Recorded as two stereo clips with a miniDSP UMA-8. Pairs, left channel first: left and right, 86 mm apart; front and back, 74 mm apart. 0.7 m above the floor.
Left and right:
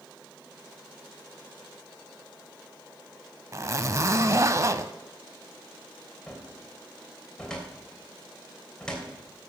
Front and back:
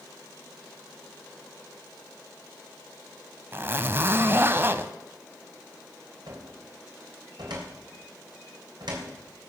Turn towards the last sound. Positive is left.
turn(degrees=170)